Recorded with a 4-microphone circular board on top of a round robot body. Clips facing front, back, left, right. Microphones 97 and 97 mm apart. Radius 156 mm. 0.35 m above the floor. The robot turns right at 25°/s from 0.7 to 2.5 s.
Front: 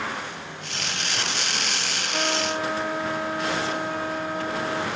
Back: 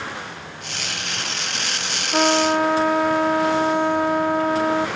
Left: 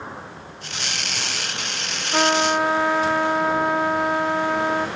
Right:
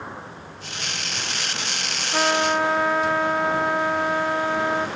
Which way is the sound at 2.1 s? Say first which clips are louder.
Back 10 dB, left 2 dB; 165° left.